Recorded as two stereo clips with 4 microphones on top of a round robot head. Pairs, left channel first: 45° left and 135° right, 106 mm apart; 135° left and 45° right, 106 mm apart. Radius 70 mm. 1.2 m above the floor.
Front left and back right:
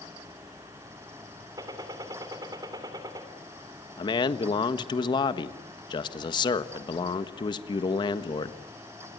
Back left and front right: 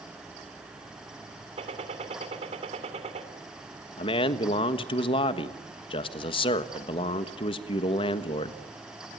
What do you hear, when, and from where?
1.6 s a gunshot: 75° right, 3 m
4.0 s a man speaking: 95° left, 1.5 m